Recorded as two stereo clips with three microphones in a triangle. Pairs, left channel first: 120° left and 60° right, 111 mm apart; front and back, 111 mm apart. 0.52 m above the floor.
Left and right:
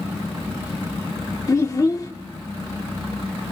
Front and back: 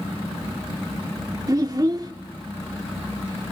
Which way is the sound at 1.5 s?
155° left.